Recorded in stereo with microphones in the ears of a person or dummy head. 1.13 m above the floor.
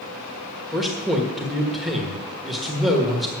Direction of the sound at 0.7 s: Centre (ahead or behind).